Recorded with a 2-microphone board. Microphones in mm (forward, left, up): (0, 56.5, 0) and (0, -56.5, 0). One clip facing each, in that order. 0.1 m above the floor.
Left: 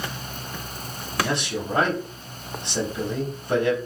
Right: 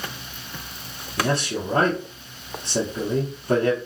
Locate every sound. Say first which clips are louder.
1.2 s a man speaking: right 2 dB; 50° right (ahead or behind), 2.5 m